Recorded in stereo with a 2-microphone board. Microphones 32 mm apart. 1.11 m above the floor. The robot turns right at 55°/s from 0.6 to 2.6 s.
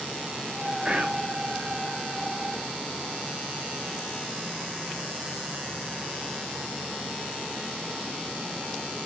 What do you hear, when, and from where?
0.8 s whispering: 30° right (ahead or behind), 1.9 m; by 1.3 s 50° right (ahead or behind), 1.9 m